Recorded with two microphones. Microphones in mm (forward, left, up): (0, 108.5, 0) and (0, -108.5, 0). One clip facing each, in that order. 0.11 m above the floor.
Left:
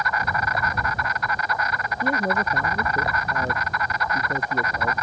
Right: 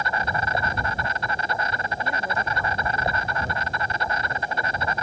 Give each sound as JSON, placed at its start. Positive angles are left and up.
{"t": 0.0, "sound": "an insect", "side_deg": -30}
{"t": 2.0, "sound": "a man speaking", "side_deg": 45}